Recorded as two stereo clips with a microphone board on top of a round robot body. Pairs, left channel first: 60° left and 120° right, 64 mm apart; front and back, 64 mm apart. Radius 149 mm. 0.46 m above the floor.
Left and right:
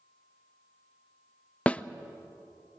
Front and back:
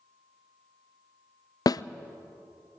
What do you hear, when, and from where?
1.7 s a snare drum: 10° right, 0.5 m